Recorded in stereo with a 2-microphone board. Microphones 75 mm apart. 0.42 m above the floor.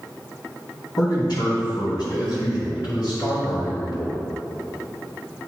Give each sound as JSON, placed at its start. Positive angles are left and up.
{"t": 1.0, "sound": "a man speaking", "side_deg": 65, "distance_m": 2.5}